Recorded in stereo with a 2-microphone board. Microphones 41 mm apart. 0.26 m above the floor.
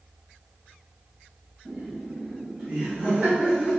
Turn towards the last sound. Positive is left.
turn(degrees=-25)  # may be behind; listen again after turning